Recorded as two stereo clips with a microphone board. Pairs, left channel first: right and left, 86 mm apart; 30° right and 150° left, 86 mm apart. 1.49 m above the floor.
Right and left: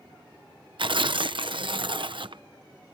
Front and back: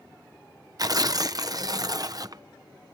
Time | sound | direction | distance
0.8 | tearing paper | 105° left | ?